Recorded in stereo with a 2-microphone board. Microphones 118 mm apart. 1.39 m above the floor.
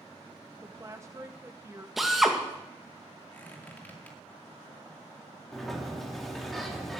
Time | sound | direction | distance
0.6 | a woman speaking | 25° right (ahead or behind) | 1.1 m
2.0 | a drill | centre (ahead or behind) | 2.0 m
3.3 | a squeak | 15° left (ahead or behind) | 2.5 m
5.5 | a sliding door | centre (ahead or behind) | 2.5 m